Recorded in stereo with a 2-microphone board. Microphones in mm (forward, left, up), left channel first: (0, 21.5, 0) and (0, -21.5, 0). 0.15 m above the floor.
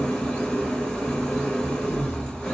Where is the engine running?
15° left (ahead or behind), 1.0 m.